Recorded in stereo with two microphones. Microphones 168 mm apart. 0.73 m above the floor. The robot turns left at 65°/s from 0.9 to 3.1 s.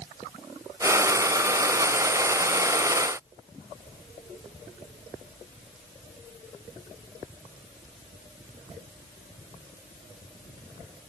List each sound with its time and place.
Only background noise.